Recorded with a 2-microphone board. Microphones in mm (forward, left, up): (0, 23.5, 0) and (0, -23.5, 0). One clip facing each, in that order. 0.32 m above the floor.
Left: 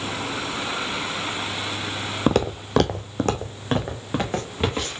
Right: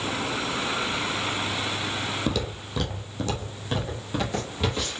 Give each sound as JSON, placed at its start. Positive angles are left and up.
{"t": 2.3, "sound": "footsteps", "side_deg": 45, "distance_m": 0.6}